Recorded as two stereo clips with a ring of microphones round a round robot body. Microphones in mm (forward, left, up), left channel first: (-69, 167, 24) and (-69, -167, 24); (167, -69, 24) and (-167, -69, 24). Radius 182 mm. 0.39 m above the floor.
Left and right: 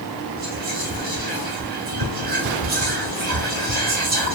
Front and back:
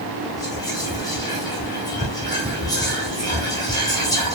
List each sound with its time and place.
0.4 s whispering: 65° right, 1.0 m